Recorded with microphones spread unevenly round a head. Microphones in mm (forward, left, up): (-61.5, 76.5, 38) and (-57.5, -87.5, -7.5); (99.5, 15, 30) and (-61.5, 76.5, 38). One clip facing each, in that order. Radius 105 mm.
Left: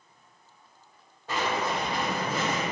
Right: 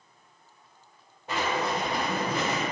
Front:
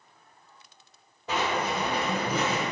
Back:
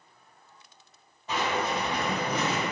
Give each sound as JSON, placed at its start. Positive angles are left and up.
{"t": 1.3, "sound": "writing", "azimuth_deg": -5, "distance_m": 1.6}